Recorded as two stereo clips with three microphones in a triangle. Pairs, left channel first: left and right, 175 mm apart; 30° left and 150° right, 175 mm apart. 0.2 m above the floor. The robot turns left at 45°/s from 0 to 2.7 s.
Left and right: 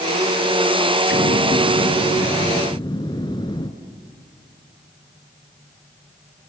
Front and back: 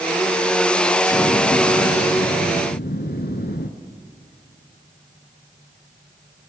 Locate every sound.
1.1 s an explosion: 105° left, 1.5 m; by 3.7 s 30° left, 1.5 m